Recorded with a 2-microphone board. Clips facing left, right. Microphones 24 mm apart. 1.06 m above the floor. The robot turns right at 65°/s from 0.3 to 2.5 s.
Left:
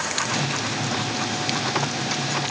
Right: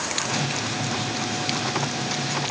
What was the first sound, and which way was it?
Only background noise.